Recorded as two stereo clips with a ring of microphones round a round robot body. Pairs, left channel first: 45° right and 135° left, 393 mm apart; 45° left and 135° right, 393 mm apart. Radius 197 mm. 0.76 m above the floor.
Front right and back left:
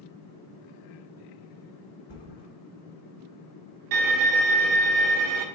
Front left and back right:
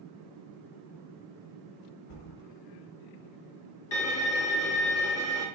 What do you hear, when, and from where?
2.1 s a thud: 20° left, 1.7 m
3.9 s a violin: 95° left, 1.0 m